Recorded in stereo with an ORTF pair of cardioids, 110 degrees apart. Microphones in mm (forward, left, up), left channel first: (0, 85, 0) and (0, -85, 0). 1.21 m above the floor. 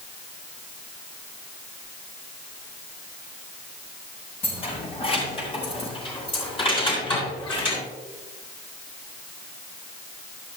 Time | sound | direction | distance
4.4 | keys jangling | 35° left | 6.5 m